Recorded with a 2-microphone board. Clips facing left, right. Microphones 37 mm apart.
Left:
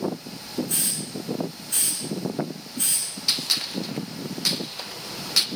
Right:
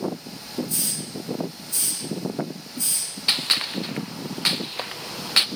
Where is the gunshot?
40° right (ahead or behind), 0.6 m.